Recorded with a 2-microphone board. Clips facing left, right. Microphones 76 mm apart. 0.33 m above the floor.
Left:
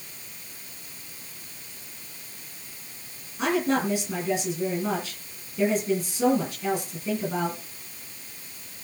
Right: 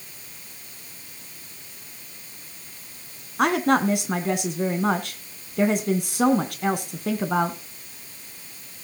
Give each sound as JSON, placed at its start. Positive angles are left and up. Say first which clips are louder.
{"t": 3.4, "sound": "a woman speaking", "louder": "right 4 dB", "side_deg": -70, "distance_m": 2.5}